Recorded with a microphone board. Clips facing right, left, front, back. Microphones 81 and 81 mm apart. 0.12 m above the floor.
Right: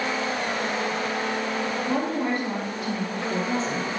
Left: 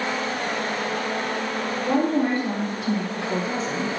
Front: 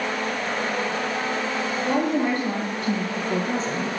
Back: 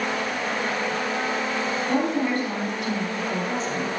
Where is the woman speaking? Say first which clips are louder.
Left 7 dB, front 2 dB; 55° left, 1.7 m; by 3.9 s straight ahead, 1.4 m.